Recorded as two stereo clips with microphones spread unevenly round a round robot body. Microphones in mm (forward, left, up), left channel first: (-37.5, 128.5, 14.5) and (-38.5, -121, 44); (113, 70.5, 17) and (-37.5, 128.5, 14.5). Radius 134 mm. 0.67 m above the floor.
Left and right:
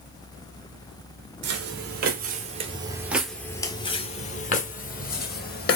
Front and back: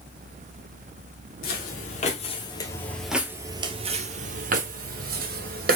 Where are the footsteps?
50° right, 1.1 m; by 5.8 s 145° left, 1.5 m.